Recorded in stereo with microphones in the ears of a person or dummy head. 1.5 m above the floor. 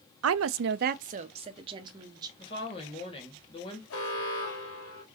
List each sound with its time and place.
0.2 s a woman speaking: 75° right (ahead or behind), 0.5 m; by 2.3 s 25° right (ahead or behind), 1.5 m
2.4 s a woman speaking: 30° left (ahead or behind), 2.5 m
3.9 s an alarm: 75° left (ahead or behind), 2.5 m